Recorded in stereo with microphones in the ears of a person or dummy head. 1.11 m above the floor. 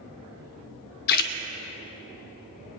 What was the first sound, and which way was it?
A splash, 50° left (ahead or behind).